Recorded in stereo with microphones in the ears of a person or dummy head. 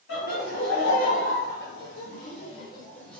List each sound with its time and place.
0.1 s laughter: 55° left (ahead or behind), 1.3 m; by 3.2 s centre (ahead or behind), 0.6 m